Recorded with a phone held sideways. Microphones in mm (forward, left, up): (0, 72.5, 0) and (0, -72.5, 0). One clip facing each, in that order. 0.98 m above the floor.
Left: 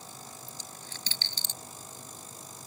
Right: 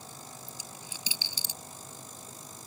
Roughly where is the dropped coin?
Centre.